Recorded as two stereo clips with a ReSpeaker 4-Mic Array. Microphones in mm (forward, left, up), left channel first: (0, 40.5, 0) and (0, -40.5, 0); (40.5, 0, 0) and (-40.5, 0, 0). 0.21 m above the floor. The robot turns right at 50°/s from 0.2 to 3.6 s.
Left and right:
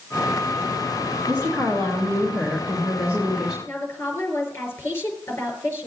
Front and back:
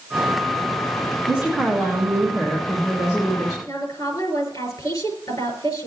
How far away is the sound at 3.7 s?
About 4.5 m.